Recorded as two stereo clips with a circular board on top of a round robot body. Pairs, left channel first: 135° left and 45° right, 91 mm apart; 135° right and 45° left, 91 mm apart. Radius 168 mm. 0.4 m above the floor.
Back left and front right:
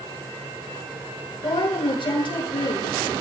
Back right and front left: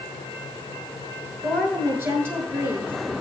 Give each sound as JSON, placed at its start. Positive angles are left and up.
{"t": 1.4, "sound": "a woman speaking", "azimuth_deg": 110, "distance_m": 8.0}